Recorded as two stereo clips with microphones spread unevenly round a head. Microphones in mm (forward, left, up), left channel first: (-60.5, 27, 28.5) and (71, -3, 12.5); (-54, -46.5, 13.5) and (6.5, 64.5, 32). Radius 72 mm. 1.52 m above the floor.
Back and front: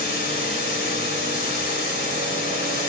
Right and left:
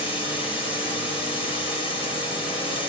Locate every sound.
0.0 s running water: 165° right, 4 m